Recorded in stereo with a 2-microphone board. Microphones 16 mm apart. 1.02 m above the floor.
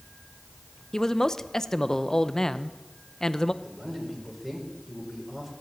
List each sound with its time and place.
0.9 s a man speaking: 30° left (ahead or behind), 0.6 m
3.6 s a man speaking: 35° right (ahead or behind), 4.5 m